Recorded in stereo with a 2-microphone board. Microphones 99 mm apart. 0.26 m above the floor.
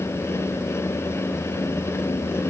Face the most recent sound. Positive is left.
No sound to turn to.